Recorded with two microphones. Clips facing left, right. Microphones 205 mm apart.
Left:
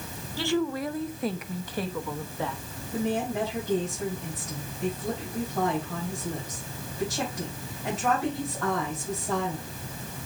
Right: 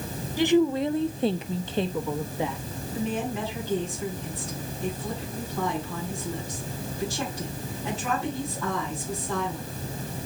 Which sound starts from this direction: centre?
A woman speaking, at 0.4 s.